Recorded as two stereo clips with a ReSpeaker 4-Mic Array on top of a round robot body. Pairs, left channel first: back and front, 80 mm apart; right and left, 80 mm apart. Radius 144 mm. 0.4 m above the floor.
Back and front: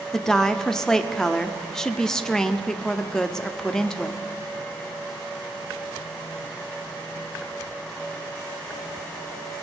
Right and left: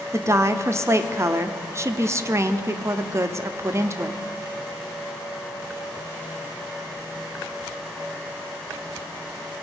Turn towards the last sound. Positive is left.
turn(degrees=100)